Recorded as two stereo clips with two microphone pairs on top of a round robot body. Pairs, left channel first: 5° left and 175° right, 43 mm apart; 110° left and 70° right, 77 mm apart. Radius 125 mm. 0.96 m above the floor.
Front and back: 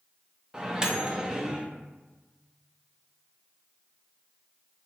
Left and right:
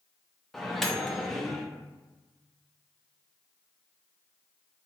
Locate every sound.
0.5 s a microwave: straight behind, 0.6 m